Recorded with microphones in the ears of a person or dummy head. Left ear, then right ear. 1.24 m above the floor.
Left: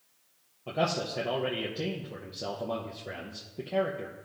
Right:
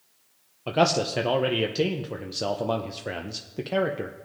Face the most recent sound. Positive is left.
turn(degrees=-70)  # may be behind; listen again after turning